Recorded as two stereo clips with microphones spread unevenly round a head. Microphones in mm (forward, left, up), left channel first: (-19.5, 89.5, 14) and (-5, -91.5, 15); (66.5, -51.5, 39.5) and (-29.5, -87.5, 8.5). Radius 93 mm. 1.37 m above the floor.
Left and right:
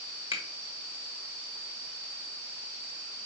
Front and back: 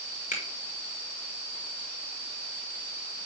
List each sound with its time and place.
0.3 s a finger snap: 30° left, 1.6 m